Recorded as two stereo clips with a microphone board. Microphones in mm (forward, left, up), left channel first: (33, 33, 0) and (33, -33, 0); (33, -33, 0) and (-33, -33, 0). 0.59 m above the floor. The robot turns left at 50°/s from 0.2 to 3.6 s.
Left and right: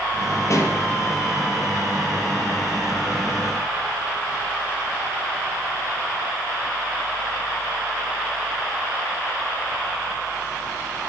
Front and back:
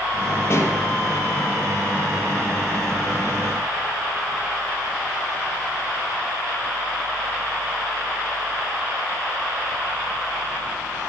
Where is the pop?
50° left, 4.5 m; by 0.8 s 35° left, 4.5 m.